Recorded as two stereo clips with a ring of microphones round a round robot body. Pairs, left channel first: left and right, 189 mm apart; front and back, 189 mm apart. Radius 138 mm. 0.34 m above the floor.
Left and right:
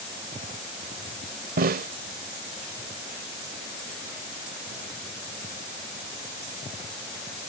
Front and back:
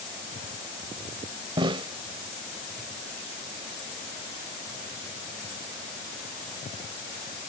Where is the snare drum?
115° right.